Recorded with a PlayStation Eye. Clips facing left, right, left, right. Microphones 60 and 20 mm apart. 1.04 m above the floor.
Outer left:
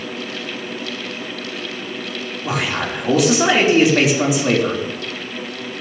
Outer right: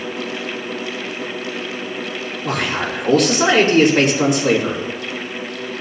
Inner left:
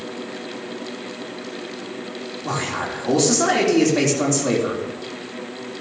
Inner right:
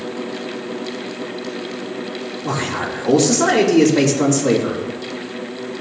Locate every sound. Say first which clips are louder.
2.4 s a man speaking: even, inner right 2 dB; 5° left (ahead or behind), 3 m